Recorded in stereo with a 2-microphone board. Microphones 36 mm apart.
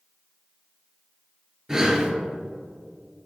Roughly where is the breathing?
Centre.